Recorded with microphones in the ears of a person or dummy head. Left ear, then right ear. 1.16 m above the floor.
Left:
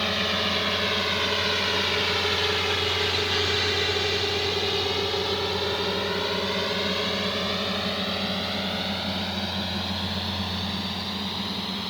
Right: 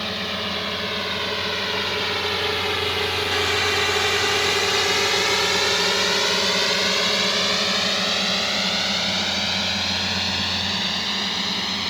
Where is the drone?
5° left (ahead or behind); by 11.9 s 65° right (ahead or behind).